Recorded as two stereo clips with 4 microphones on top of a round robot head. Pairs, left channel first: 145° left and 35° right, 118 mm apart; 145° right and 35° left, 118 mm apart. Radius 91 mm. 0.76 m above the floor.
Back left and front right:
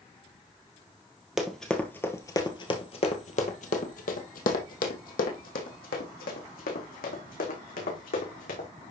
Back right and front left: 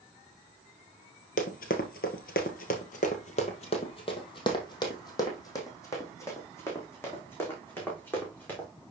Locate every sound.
1.4 s running footsteps: 120° right, 1.4 m; by 8.7 s 140° left, 4.5 m